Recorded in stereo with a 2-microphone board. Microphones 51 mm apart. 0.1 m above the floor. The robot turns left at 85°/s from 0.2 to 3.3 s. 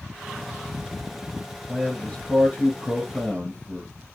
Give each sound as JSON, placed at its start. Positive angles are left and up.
{"t": 1.7, "sound": "a man speaking", "azimuth_deg": 175, "distance_m": 1.3}